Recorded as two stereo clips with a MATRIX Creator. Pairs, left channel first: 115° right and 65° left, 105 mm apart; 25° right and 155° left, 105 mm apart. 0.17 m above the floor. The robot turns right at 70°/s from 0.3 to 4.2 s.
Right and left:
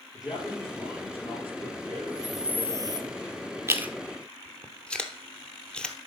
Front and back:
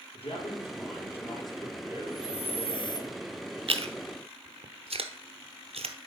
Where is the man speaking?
15° right, 3.5 m; by 3.1 s 175° left, 3.5 m.